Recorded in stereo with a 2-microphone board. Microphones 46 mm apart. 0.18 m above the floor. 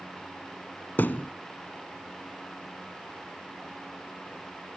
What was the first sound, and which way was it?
A thud, 45° left (ahead or behind).